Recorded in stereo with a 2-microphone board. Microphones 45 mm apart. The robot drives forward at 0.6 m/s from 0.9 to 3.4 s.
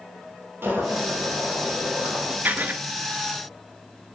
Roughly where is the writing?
Right.